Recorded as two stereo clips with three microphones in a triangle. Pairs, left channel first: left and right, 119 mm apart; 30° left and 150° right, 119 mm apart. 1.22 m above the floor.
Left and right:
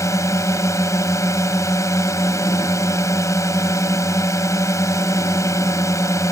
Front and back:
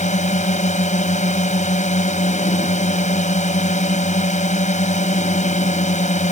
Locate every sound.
0.0 s a drone: 25° left